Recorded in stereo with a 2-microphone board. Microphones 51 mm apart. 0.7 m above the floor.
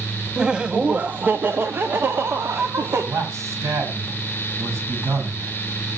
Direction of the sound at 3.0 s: 75° right (ahead or behind).